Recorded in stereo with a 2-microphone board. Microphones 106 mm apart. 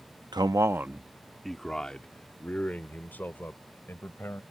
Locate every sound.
0.3 s a man speaking: 45° right (ahead or behind); by 4.4 s 20° left (ahead or behind)